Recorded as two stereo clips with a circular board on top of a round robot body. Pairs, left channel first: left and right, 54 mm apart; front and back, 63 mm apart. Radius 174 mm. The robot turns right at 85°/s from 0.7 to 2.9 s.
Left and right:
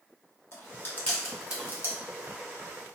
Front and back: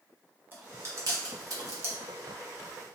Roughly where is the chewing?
Behind left.